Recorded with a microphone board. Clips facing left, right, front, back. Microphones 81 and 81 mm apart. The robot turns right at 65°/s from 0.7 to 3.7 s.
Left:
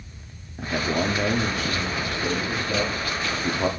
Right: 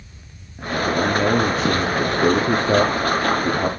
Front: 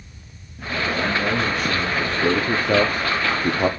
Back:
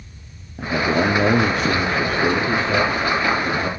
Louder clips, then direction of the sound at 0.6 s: Right 4 dB, back 5 dB; 165° left.